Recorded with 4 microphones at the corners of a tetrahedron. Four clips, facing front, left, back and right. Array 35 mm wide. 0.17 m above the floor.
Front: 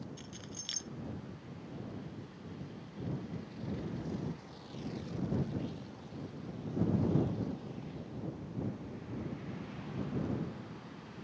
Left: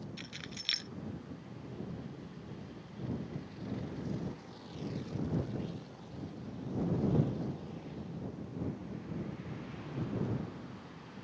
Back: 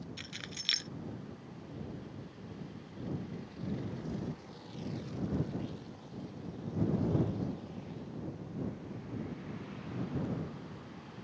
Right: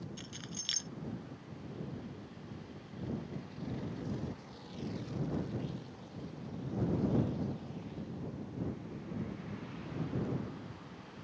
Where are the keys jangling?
155° left.